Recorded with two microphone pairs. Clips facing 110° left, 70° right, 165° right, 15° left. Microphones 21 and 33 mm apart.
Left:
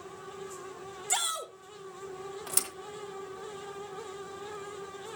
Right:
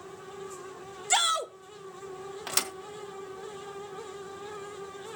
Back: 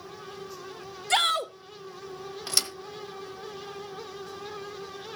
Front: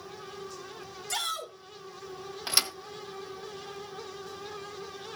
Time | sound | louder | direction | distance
1.1 | a shout | right 7 dB, back 10 dB | 130° right | 0.9 m
2.5 | a thud | right 5 dB, front 1 dB | 40° right | 1.3 m